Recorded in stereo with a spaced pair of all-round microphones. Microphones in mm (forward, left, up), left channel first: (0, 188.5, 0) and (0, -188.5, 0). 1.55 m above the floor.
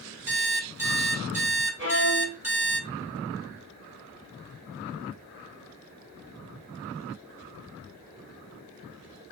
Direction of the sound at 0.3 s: 5° right (ahead or behind).